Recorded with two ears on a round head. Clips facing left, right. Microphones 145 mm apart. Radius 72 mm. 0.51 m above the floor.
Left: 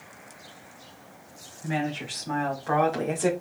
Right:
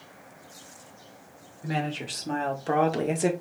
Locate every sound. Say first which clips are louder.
1.6 s a woman speaking: left 1 dB; 50° right (ahead or behind), 1.8 m; by 3.3 s 25° right (ahead or behind), 1.2 m